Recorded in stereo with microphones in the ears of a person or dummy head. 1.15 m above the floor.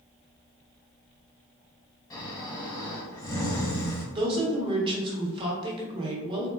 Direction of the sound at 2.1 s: 20° left (ahead or behind).